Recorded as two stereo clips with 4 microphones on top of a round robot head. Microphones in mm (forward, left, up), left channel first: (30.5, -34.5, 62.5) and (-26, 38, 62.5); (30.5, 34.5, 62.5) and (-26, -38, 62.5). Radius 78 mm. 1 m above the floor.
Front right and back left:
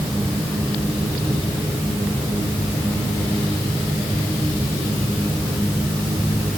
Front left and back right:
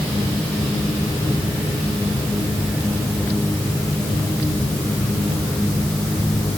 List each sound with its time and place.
Only background noise.